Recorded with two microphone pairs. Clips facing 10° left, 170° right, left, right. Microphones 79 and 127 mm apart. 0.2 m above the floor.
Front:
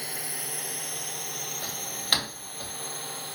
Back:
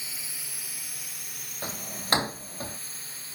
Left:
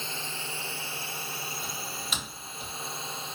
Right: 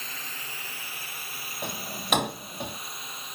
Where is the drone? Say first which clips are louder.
Front 7 dB, left 4 dB; 30° left.